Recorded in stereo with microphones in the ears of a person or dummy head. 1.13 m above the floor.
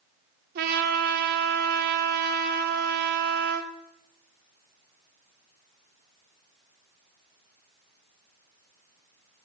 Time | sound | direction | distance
0.6 | a trumpet | 50° right (ahead or behind) | 1.5 m